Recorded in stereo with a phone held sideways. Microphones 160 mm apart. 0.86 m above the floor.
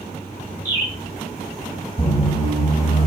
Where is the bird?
15° right (ahead or behind), 1.1 m.